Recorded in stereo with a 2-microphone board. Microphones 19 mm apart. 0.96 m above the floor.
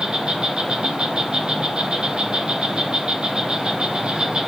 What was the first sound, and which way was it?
An insect, 65° right (ahead or behind).